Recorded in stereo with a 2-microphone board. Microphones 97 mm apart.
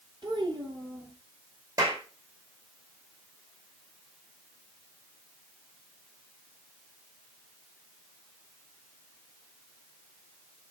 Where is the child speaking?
50° right (ahead or behind), 4 m.